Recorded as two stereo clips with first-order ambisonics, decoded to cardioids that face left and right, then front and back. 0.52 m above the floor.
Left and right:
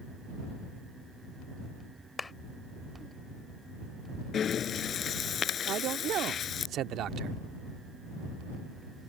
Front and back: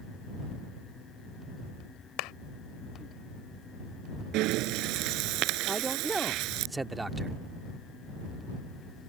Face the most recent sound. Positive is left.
turn(degrees=-105)